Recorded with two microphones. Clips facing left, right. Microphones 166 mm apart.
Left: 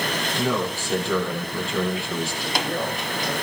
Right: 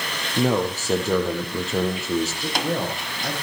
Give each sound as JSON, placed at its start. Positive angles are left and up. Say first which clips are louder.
{"t": 0.4, "sound": "a man speaking", "louder": "right 5 dB", "side_deg": -40, "distance_m": 5.0}
{"t": 2.4, "sound": "a man speaking", "louder": "right 1 dB", "side_deg": -85, "distance_m": 9.5}